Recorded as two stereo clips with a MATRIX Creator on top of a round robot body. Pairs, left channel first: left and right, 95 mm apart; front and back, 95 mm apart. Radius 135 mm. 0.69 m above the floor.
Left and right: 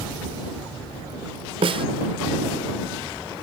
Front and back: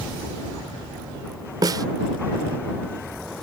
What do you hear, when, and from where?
1.6 s a snare drum: 125° right